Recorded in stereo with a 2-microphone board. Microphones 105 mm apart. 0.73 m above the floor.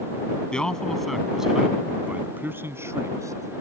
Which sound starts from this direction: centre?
A man speaking, at 0.5 s.